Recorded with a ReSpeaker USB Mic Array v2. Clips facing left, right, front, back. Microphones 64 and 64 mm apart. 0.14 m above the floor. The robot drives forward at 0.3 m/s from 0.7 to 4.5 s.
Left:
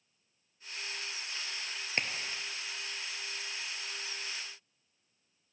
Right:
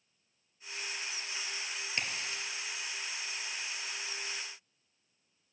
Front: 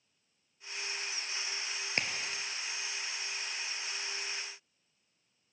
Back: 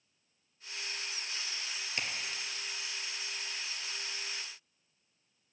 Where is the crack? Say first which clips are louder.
Left 3 dB, front 3 dB; 40° left, 1.0 m; by 2.4 s 45° left, 0.9 m.